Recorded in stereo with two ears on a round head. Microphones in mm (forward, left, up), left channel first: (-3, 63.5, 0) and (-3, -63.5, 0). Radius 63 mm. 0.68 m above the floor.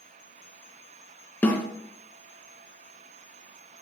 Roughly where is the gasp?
No gasp in this recording.